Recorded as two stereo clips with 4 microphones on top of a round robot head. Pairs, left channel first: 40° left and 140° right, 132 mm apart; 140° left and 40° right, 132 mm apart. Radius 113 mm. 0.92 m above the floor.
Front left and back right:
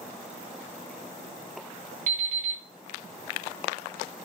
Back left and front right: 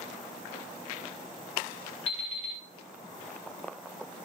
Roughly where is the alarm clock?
Behind.